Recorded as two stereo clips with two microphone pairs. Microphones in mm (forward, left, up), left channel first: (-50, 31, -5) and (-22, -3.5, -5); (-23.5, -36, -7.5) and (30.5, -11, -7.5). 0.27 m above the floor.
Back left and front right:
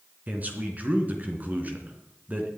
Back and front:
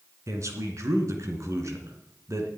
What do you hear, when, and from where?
0.3 s a man speaking: straight ahead, 3 m